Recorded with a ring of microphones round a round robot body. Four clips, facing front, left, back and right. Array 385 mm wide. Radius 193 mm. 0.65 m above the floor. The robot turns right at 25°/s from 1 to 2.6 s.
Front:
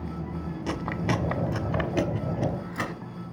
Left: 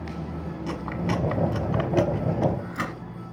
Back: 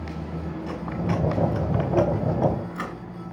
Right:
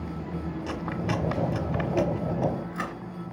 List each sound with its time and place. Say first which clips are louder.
0.7 s chewing: left 3 dB, even; straight ahead, 1.2 m; by 2.9 s 40° left, 1.2 m